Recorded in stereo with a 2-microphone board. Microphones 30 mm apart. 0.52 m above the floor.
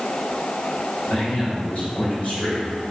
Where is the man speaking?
55° left (ahead or behind), 2.5 m.